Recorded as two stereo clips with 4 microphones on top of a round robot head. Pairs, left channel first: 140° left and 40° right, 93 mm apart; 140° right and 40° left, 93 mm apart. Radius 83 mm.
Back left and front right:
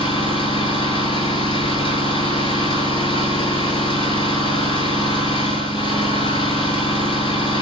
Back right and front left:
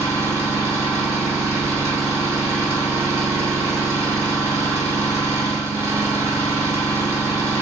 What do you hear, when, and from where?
0.0 s an engine running: 105° left, 9.5 m